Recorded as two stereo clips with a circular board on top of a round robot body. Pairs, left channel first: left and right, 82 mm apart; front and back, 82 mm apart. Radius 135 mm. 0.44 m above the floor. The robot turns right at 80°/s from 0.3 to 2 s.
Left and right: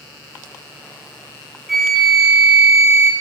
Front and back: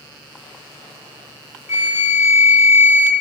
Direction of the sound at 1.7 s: Straight behind.